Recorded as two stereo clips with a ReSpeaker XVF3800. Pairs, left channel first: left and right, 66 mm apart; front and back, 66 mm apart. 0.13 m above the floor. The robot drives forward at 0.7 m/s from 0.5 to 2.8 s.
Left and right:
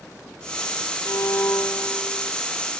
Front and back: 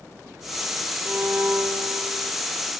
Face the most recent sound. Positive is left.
turn(degrees=160)